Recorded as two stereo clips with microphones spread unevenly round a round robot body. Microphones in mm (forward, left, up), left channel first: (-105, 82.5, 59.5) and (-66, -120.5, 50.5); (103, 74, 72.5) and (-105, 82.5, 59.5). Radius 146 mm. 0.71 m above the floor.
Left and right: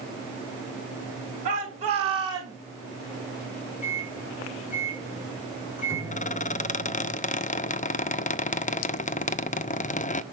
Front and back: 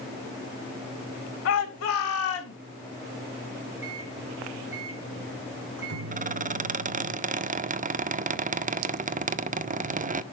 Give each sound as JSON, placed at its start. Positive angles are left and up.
{"t": 1.4, "sound": "a shout", "azimuth_deg": -20, "distance_m": 3.5}
{"t": 3.8, "sound": "a microwave", "azimuth_deg": 150, "distance_m": 5.0}
{"t": 6.1, "sound": "a squeak", "azimuth_deg": 145, "distance_m": 0.6}